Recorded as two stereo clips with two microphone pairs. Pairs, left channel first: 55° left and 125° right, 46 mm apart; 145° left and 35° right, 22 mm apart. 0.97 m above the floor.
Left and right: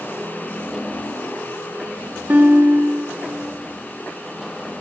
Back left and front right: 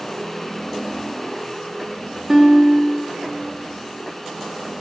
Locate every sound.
2.3 s a guitar: 100° right, 1.2 m